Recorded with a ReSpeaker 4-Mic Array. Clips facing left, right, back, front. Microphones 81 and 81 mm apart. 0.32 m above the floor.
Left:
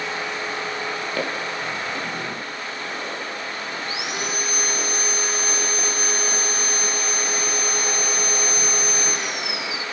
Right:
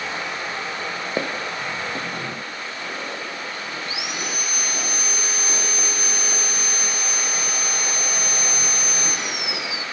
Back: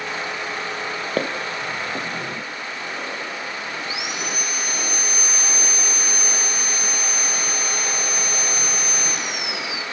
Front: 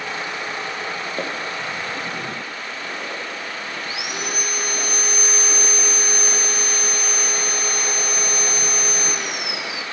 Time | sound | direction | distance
1.2 | footsteps | 160° right | 3 m
3.8 | sawing | 45° left | 2 m